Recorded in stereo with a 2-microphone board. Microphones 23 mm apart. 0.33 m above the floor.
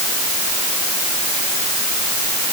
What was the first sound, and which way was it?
Only background noise.